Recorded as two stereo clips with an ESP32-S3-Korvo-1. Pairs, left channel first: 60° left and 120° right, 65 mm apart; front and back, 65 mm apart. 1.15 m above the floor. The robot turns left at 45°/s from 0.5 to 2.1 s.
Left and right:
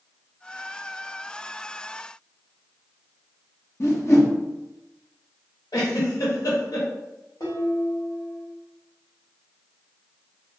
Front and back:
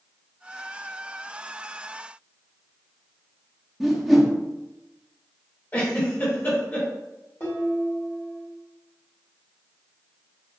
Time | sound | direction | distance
3.8 | a whoosh | 90° left | 0.8 m
5.7 | a giggle | 60° left | 1.1 m
7.4 | dishes clattering | 40° left | 1.5 m